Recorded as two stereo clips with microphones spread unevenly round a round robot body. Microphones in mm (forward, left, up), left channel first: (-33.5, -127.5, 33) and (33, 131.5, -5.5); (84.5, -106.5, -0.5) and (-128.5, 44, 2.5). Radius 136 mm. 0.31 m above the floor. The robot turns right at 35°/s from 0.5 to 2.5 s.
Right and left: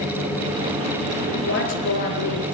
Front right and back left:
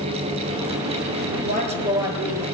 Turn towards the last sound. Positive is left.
turn(degrees=-120)